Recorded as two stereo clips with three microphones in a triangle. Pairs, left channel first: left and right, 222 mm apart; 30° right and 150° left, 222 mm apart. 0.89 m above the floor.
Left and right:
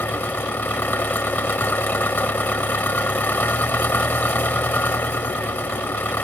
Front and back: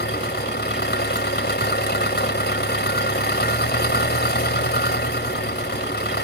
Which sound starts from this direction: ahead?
An engine running, at 0.0 s.